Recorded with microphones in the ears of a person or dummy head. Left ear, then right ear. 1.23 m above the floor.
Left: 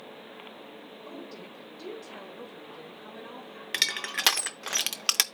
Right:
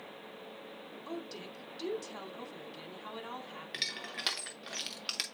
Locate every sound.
1.1 s a woman speaking: 60° right (ahead or behind), 3 m
3.7 s crushing: 40° left (ahead or behind), 0.5 m